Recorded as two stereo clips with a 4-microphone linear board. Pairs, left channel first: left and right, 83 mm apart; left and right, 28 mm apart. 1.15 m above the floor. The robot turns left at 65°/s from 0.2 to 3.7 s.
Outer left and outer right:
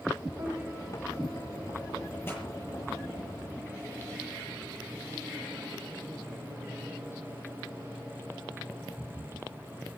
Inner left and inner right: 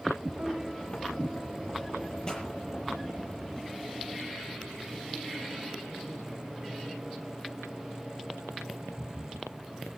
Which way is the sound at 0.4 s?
140° right.